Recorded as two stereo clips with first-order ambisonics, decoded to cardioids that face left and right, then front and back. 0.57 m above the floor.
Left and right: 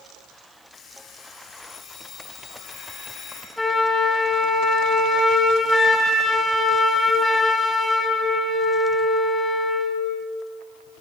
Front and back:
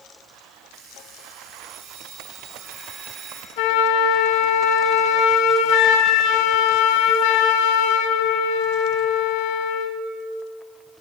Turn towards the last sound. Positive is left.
turn(degrees=5)